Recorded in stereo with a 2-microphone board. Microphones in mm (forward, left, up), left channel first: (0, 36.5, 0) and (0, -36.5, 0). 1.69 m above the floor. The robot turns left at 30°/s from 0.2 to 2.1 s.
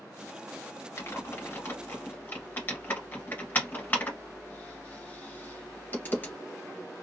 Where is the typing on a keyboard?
40° left (ahead or behind), 1.0 m; by 6.3 s 25° left (ahead or behind), 1.0 m.